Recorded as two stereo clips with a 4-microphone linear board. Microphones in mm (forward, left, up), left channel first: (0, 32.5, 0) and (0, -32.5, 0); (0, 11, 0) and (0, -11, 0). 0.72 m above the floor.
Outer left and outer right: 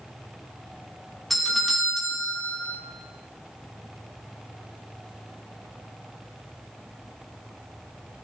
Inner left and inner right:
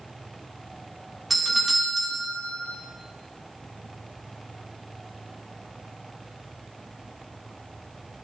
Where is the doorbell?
Centre (ahead or behind), 1.7 m.